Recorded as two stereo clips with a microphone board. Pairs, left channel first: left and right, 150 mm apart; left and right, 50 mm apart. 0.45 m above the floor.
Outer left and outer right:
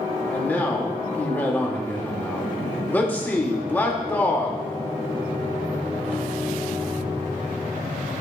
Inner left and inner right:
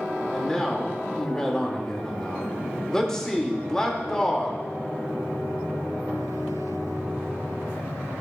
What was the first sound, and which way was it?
A man speaking, 10° left (ahead or behind).